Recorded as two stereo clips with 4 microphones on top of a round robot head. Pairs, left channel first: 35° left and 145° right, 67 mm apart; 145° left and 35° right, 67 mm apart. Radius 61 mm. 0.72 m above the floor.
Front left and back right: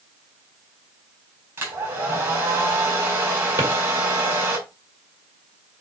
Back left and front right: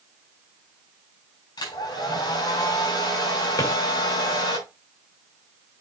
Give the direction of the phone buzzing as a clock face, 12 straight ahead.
I don't hear a phone buzzing.